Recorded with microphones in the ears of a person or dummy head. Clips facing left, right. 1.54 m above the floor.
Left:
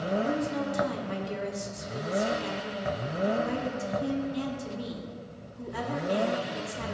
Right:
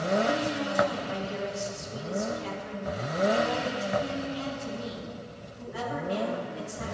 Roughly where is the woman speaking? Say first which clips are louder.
Right 1 dB; left.